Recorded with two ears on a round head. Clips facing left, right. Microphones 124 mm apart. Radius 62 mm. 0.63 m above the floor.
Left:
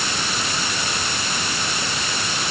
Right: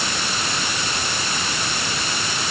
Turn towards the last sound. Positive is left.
No sound to turn to.